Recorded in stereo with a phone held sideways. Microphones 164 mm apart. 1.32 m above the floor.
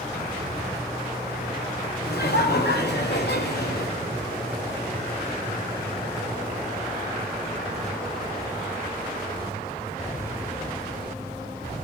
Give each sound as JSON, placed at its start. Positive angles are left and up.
{"t": 2.0, "sound": "laughter", "side_deg": 75, "distance_m": 3.5}